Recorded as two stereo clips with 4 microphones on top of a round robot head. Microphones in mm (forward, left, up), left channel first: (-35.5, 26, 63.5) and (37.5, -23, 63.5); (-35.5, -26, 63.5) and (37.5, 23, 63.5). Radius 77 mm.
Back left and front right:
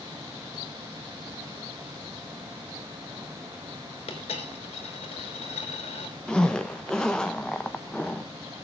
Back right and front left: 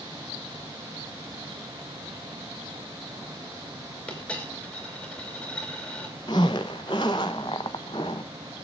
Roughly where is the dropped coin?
Behind left.